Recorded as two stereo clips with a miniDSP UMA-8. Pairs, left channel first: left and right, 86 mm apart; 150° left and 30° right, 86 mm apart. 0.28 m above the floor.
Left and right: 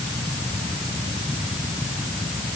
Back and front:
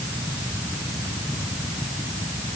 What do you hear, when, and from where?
Only background noise.